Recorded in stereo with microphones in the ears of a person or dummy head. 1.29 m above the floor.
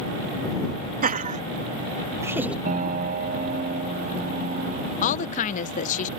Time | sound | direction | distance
1.0 | laughter | 45° right (ahead or behind) | ?
2.6 | a piano | 40° right (ahead or behind) | ?
5.0 | a woman speaking | 40° left (ahead or behind) | ?